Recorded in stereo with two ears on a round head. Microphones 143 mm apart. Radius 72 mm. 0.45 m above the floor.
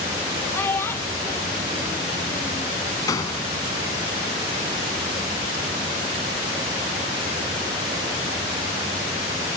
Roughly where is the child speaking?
Centre.